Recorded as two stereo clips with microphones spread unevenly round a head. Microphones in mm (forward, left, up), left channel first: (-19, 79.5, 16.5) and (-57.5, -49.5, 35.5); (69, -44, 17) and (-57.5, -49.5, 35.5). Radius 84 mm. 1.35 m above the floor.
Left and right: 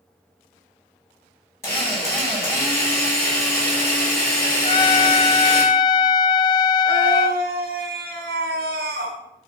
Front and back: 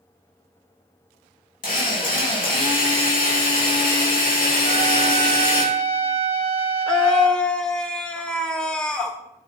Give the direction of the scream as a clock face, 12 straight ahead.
3 o'clock.